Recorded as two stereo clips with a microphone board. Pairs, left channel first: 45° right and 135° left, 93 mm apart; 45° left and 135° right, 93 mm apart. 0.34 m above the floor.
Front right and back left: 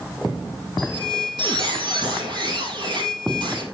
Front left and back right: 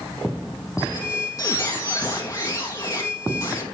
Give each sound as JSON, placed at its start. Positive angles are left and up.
{"t": 0.8, "sound": "a squeak", "azimuth_deg": 100, "distance_m": 3.5}